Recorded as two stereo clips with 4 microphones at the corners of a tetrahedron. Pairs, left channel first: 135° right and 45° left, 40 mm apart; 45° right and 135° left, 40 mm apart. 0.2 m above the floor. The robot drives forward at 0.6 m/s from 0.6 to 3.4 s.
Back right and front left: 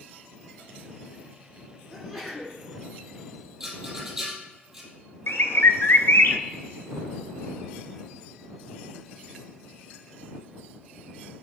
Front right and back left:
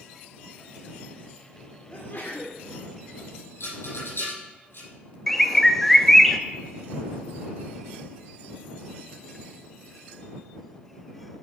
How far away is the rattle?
About 3 m.